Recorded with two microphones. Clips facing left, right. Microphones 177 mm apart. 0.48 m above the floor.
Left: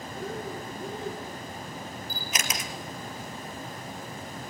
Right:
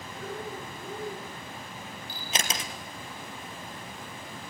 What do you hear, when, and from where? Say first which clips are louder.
0.1 s breathing: left 2 dB; 25° left (ahead or behind), 9.5 m
2.1 s a camera shutter: right 2 dB; 30° right (ahead or behind), 2.5 m